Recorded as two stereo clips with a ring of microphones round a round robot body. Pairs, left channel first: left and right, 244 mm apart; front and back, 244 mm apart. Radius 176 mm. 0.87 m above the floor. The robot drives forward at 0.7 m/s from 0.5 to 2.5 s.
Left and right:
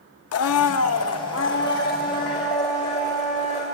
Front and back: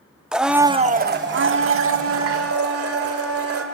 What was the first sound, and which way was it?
A blender, 95° left.